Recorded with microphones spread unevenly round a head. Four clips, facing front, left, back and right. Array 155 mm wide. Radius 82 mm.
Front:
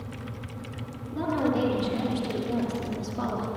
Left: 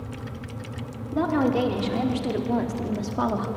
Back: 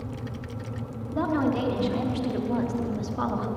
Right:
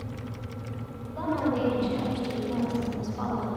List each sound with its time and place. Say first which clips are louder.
1.1 s a woman speaking: left 5 dB, back 1 dB; 105° left, 4.5 m; by 3.5 s 95° left, 3 m